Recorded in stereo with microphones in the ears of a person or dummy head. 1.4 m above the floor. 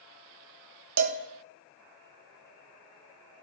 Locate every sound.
1.0 s a cowbell: 85° right, 0.8 m